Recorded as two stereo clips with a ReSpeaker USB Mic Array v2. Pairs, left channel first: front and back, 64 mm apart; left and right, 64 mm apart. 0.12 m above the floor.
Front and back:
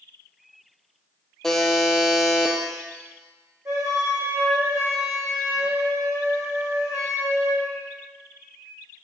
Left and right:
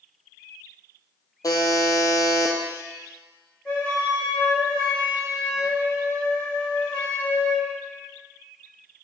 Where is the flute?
160° left, 3.5 m.